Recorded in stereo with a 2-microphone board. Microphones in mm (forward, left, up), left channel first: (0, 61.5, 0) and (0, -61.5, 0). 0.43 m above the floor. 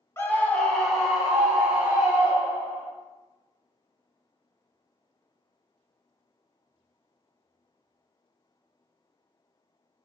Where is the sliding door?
I don't hear a sliding door.